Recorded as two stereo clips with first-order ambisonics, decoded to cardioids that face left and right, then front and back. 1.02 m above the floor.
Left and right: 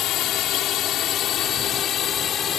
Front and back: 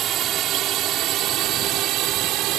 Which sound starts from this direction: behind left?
A drone, at 0.0 s.